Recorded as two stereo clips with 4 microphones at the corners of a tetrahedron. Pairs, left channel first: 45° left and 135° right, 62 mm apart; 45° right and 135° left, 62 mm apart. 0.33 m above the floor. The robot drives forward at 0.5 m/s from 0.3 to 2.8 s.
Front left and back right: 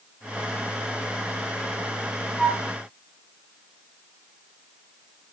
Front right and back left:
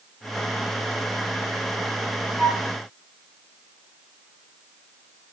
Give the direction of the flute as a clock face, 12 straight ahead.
7 o'clock.